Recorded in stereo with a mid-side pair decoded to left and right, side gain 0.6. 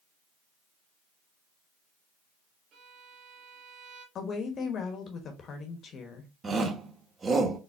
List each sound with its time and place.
2.7 s a violin: 55° right, 1.7 m
4.2 s a woman speaking: 45° left, 1.2 m
6.4 s a shout: 30° right, 1.4 m